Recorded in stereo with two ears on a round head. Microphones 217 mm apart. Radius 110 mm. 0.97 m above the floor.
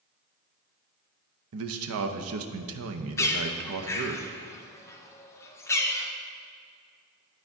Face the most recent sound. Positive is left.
turn(degrees=10)  # may be behind; listen again after turning